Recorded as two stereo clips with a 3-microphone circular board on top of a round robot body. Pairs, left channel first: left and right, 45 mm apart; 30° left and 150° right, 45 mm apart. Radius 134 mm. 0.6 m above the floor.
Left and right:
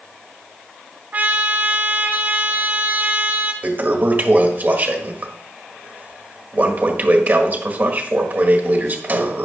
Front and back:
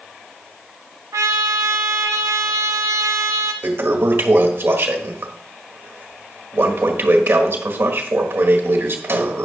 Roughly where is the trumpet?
Behind right.